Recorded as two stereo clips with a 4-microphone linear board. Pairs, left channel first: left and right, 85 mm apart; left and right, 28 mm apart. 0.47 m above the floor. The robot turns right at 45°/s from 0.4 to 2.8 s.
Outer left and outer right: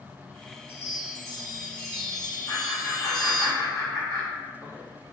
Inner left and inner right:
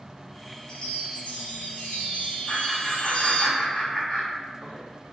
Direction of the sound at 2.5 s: 45° left (ahead or behind).